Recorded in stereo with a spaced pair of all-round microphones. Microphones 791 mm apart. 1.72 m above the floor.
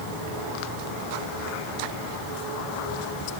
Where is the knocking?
No knocking in this recording.